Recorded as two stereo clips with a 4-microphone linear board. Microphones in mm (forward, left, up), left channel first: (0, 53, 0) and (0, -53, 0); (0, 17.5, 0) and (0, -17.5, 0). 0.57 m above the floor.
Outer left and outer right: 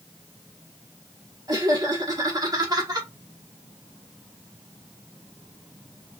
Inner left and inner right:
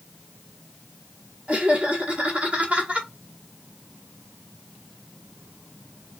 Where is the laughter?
40° right (ahead or behind), 1.2 m.